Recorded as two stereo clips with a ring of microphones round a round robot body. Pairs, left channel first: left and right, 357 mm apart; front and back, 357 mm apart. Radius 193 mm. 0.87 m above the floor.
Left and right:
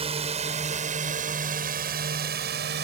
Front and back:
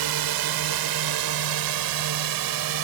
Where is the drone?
165° right; by 2.8 s 155° right.